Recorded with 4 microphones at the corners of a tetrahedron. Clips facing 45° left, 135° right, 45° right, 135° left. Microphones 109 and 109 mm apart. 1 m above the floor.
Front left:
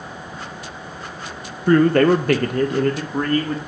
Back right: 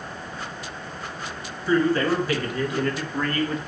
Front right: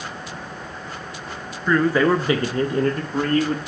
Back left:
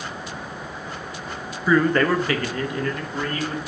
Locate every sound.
1.7 s a man speaking: 55° left, 0.8 m; by 3.6 s 10° right, 1.5 m